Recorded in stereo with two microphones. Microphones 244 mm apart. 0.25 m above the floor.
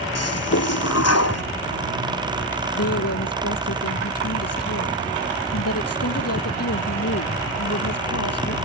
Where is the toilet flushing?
85° left.